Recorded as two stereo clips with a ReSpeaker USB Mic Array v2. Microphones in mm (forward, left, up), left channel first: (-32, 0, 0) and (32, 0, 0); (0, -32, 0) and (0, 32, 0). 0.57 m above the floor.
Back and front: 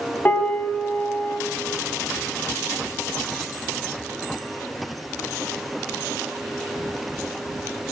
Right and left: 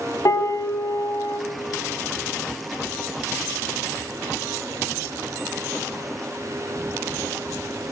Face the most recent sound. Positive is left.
turn(degrees=-120)